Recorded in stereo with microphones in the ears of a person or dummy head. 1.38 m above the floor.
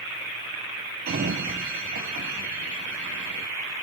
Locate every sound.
1.1 s a sliding door: 55° right (ahead or behind), 0.9 m